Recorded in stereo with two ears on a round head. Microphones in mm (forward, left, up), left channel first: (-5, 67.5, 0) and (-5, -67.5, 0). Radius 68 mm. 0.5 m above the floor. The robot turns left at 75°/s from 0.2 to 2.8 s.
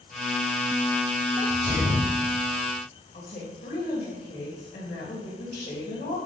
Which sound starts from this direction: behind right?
A sneeze, at 1.4 s.